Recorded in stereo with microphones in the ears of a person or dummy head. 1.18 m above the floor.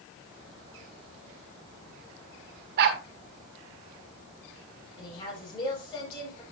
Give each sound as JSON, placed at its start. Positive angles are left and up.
{"t": 2.8, "sound": "a dog barking", "side_deg": -60, "distance_m": 1.5}
{"t": 5.0, "sound": "a woman speaking", "side_deg": 25, "distance_m": 7.5}